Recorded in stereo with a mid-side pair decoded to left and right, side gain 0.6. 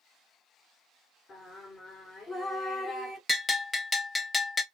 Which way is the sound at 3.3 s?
20° left.